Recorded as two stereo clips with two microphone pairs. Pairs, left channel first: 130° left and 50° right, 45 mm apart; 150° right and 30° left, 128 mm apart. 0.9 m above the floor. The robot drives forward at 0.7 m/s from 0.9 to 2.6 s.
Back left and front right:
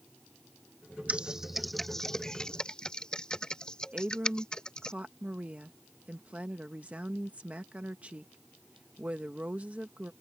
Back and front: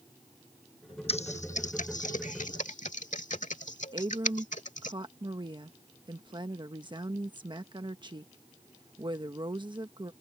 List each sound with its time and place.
1.1 s typing on a keyboard: 115° right; by 4.9 s 160° right
3.9 s a woman speaking: 5° right